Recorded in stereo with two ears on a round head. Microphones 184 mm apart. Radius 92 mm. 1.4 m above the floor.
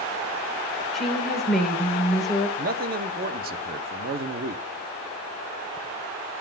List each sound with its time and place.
0.9 s a woman speaking: centre (ahead or behind), 4.5 m
2.6 s a man speaking: 45° right (ahead or behind), 1.0 m